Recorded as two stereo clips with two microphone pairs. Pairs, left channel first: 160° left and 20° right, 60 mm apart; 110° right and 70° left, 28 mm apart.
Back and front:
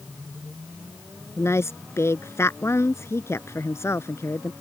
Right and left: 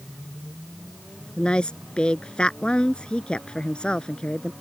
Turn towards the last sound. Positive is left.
turn(degrees=-155)